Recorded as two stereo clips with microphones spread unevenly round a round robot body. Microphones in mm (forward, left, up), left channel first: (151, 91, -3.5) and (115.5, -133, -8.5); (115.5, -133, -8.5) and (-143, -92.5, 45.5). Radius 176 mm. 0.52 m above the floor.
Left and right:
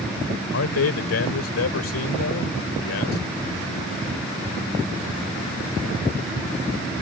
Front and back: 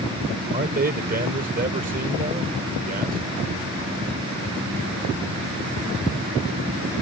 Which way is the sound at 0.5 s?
105° left.